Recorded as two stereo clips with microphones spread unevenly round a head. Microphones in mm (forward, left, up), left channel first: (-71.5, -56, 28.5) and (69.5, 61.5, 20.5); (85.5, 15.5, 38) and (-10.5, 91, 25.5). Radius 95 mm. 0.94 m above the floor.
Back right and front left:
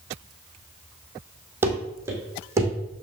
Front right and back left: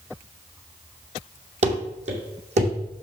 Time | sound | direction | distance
1.6 | running footsteps | 120° left | 1.9 m